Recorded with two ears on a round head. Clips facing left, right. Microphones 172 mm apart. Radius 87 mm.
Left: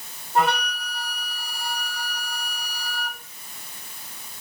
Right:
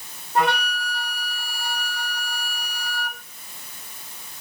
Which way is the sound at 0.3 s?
5° left (ahead or behind).